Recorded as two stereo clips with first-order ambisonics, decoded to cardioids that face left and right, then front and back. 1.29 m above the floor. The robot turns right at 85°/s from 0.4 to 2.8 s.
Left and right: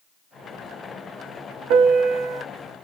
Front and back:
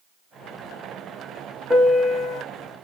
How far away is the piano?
About 0.9 m.